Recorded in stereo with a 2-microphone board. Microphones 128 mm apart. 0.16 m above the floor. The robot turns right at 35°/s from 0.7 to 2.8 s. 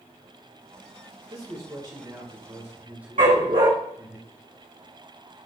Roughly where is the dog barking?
Right.